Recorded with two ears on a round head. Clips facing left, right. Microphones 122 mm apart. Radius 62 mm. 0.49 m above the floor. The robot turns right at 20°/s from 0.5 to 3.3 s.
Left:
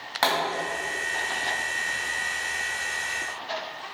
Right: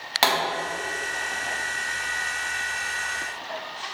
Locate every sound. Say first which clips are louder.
0.2 s a pop: right 2 dB; 20° right (ahead or behind), 3 m